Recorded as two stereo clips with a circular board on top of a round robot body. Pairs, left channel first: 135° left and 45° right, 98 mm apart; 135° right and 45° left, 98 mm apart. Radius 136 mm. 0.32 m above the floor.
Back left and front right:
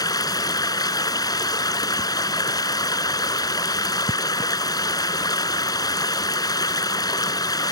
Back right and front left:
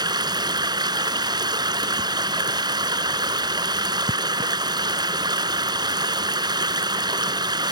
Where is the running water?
90° left.